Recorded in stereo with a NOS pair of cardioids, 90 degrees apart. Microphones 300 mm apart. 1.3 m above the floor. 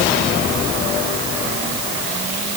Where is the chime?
No chime in this recording.